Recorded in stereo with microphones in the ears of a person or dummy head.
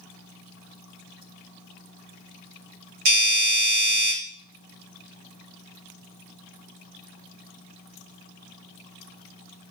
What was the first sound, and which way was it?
A doorbell, 70° right (ahead or behind).